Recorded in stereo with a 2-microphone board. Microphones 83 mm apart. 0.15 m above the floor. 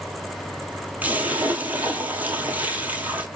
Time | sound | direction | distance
1.0 | a splash | 20° right (ahead or behind) | 0.8 m